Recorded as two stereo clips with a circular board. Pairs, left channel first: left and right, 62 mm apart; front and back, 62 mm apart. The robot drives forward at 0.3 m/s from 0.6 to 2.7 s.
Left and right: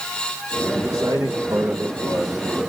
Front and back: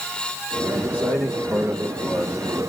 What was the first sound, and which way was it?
A man speaking, 115° right.